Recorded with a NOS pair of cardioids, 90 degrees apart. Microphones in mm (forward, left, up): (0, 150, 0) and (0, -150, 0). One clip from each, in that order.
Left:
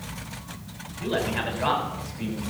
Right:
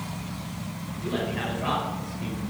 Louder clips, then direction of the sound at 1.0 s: Left 3 dB; 55° left.